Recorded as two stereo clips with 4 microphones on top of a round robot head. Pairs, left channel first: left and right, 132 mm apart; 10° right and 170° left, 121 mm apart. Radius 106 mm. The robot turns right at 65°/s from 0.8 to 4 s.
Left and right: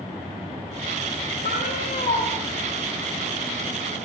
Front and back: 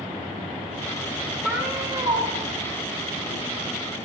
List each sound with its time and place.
1.4 s a cat meowing: 85° left, 8 m; by 2.3 s 140° left, 8 m